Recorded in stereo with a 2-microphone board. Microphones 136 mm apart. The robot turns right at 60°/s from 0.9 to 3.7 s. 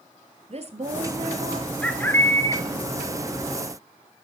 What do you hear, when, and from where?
0.5 s a woman speaking: 110° right, 1.8 m; by 1.7 s 60° right, 1.8 m
1.8 s a bird: 15° left, 1.6 m; by 2.6 s 60° left, 1.6 m